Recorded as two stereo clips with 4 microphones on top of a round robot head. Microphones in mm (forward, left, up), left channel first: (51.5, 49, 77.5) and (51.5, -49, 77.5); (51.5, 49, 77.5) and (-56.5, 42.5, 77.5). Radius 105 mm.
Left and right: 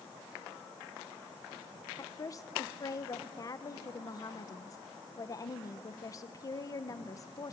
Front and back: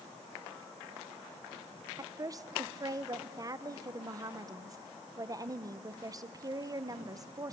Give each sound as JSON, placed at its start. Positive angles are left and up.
{"t": 2.0, "sound": "a woman speaking", "azimuth_deg": 135, "distance_m": 1.0}